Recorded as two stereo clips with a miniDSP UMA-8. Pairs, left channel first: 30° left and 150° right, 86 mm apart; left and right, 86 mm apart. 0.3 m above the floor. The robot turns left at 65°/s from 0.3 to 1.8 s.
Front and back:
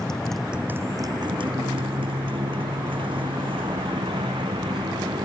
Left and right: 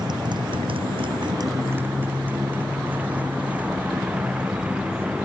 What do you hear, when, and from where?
0.0 s a motorcycle: 50° right; by 5.2 s 165° right